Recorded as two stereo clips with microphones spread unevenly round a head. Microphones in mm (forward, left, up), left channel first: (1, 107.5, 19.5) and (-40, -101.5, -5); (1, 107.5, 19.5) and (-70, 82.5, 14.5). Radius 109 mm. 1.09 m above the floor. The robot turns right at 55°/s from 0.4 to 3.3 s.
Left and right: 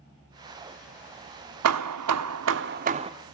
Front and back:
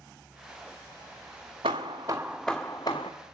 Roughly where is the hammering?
Right.